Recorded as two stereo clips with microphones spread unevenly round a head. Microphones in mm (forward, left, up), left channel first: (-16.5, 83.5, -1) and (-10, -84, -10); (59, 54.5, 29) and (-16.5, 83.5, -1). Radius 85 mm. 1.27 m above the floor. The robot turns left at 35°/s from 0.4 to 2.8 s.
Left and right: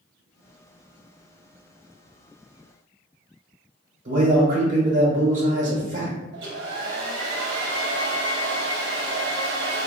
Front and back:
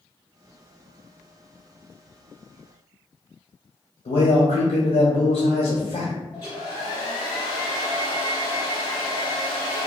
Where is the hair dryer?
70° right, 0.7 m.